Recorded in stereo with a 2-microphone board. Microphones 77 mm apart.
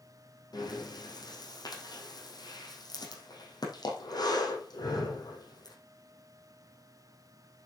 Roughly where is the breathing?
Left.